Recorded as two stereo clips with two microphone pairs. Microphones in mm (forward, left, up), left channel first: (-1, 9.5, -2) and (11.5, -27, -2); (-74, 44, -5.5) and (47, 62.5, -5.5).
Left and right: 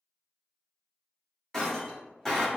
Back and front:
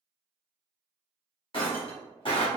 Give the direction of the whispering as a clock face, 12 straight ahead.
I don't hear whispering.